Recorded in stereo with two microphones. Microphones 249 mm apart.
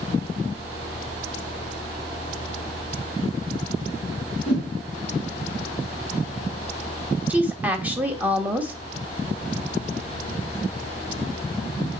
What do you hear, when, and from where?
4.5 s a whoosh: 70° left (ahead or behind), 2.5 m
7.3 s a woman speaking: 5° right (ahead or behind), 1.2 m